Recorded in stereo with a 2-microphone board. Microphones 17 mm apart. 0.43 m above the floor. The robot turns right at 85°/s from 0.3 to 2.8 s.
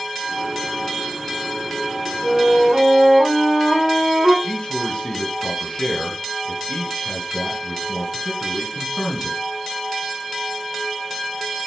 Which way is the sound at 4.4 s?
60° left (ahead or behind).